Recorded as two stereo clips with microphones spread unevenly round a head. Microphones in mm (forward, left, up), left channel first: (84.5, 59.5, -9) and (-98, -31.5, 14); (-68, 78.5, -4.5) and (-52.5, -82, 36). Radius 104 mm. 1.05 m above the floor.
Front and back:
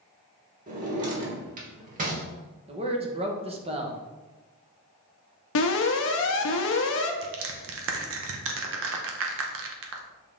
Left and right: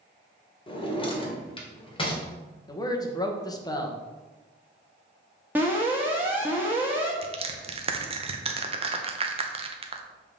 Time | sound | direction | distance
0.7 | a drawer | 160° left | 1.5 m
2.7 | a man speaking | 145° left | 1.1 m
5.5 | an alarm | 5° right | 0.7 m
7.2 | crushing | 145° right | 0.9 m